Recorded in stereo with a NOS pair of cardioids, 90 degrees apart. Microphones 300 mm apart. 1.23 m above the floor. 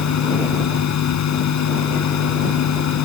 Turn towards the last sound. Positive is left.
turn(degrees=65)